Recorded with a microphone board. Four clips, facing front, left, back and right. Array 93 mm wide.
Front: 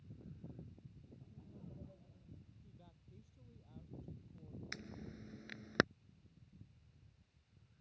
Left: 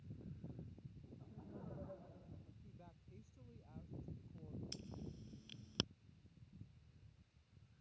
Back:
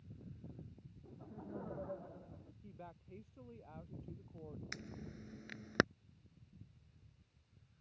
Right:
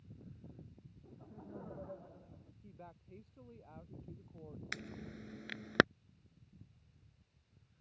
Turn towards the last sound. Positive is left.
turn(degrees=-95)